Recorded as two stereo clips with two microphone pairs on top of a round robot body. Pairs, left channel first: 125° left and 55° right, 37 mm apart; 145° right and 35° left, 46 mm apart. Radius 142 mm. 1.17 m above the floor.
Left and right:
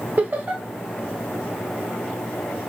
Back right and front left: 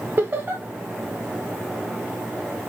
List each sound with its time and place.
0.2 s laughter: 15° right, 1.7 m